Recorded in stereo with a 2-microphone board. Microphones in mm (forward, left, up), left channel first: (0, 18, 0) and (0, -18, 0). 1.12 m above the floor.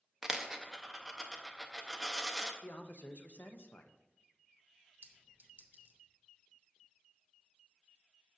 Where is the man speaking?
60° left (ahead or behind), 0.6 m.